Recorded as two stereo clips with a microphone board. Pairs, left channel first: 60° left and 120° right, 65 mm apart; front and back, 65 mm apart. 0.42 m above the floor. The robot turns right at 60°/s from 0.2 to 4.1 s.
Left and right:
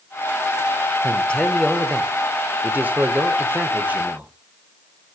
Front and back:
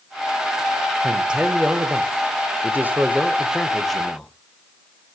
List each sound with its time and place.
1.0 s a man speaking: 100° left, 1.4 m; by 4.3 s 75° right, 1.4 m